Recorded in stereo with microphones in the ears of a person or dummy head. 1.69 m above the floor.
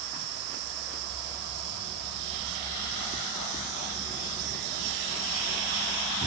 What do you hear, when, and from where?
0.0 s an insect: 85° right